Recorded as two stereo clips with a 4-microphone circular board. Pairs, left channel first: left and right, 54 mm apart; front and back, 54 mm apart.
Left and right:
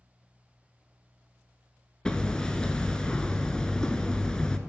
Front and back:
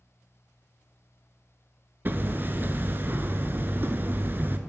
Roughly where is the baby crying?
No baby crying in this recording.